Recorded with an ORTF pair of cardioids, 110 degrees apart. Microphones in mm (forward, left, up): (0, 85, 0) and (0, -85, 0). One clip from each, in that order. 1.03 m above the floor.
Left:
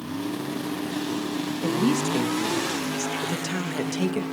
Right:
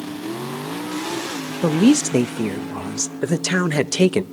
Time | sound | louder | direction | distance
1.6 | a woman speaking | right 8 dB | 55° right | 0.6 m